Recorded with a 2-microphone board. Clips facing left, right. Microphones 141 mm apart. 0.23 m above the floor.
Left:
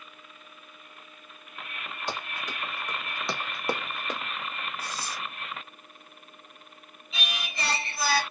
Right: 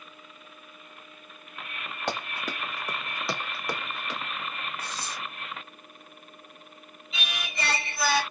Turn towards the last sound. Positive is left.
turn(degrees=0)  # may be behind; listen again after turning